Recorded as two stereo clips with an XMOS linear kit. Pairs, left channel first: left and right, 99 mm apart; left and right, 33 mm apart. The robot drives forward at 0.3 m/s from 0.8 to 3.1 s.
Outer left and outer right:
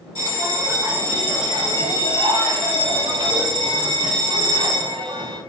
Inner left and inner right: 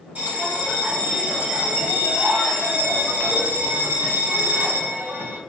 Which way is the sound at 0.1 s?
45° right (ahead or behind).